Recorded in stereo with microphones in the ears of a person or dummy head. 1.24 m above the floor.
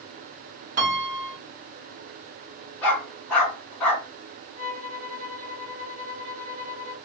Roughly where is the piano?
Right.